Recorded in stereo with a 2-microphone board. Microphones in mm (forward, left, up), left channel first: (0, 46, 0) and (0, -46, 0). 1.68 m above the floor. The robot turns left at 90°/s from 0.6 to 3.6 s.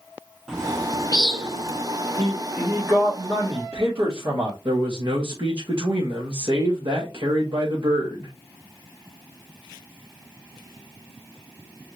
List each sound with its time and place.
0.5 s a bird: 5° right (ahead or behind), 1.1 m; by 1.8 s 70° left (ahead or behind), 1.1 m
2.2 s a man speaking: 30° left, 1.9 m; by 4.5 s 95° right, 1.9 m
4.7 s a man speaking: 65° right (ahead or behind), 1.2 m